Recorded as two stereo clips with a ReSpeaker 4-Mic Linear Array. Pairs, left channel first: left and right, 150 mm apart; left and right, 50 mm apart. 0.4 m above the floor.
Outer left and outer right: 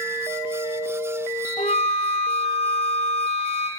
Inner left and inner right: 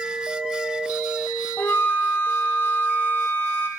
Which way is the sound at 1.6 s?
45° left (ahead or behind).